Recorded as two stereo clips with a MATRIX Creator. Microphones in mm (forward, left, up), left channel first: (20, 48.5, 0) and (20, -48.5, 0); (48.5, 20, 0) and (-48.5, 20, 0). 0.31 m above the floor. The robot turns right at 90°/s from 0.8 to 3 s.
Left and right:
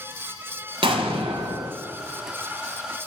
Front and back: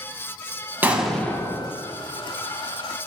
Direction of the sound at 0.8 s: 110° right.